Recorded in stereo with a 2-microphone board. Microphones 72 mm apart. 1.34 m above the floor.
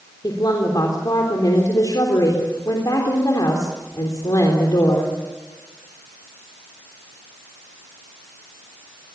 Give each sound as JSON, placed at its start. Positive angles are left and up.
{"t": 0.2, "sound": "a woman speaking", "side_deg": 60, "distance_m": 3.5}